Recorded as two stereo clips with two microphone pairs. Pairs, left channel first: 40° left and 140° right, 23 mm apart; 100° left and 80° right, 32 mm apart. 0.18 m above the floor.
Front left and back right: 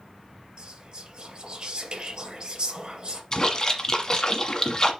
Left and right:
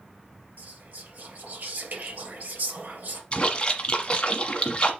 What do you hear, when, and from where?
0.6 s whispering: 105° right, 3 m
3.3 s a splash: 75° left, 1.2 m